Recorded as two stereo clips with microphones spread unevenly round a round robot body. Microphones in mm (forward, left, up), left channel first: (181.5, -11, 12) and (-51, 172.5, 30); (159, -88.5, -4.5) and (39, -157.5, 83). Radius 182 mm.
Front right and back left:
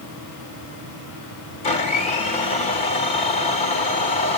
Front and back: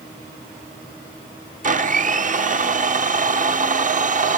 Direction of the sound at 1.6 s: 110° right.